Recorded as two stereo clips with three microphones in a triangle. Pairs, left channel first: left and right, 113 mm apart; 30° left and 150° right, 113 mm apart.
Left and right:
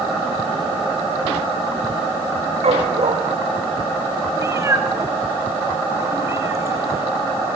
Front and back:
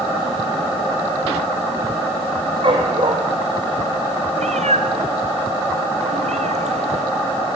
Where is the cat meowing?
155° right, 1.8 m.